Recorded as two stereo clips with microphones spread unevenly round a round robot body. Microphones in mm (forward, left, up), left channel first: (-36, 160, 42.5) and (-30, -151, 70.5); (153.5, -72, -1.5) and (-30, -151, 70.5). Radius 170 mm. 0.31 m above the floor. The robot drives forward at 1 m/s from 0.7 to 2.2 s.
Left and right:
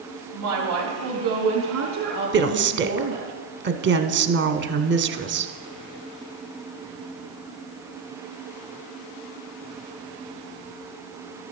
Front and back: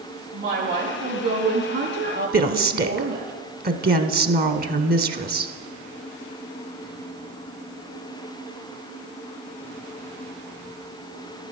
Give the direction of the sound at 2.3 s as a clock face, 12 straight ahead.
4 o'clock.